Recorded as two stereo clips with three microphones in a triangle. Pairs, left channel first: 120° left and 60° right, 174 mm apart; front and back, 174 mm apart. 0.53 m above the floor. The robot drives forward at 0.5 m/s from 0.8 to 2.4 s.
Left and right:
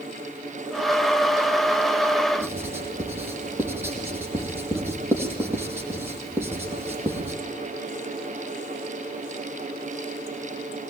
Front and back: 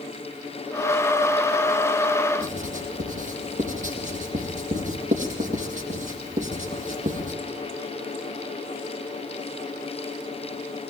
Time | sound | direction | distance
2.4 | writing | 135° right | 4.5 m